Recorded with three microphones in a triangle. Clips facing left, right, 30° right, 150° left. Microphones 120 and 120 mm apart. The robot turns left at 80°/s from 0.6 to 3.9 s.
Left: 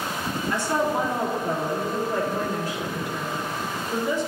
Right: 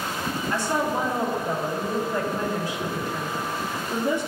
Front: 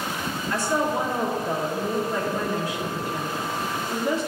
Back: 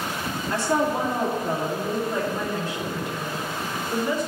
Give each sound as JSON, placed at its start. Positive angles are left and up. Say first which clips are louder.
{"t": 0.5, "sound": "a woman speaking", "louder": "left 1 dB, back 1 dB", "azimuth_deg": -150, "distance_m": 3.0}